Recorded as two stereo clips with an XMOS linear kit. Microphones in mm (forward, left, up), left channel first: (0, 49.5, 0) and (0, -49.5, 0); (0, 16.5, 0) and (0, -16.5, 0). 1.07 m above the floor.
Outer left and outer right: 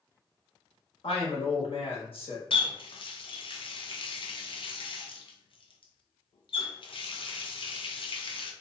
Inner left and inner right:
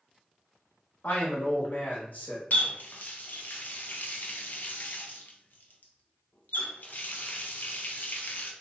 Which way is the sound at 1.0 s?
70° left (ahead or behind).